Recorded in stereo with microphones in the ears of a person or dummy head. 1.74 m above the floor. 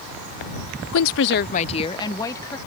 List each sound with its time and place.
0.9 s a woman speaking: 80° left; by 2.6 s 15° left (ahead or behind)